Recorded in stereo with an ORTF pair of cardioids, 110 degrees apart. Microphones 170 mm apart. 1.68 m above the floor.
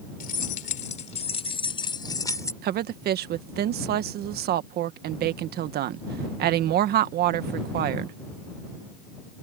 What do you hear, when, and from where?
0.2 s keys jangling: 55° left; by 2.5 s 15° left
2.6 s a woman speaking: 65° right